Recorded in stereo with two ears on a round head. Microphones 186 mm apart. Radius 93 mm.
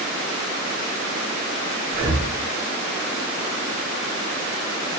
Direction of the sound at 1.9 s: 50° right (ahead or behind).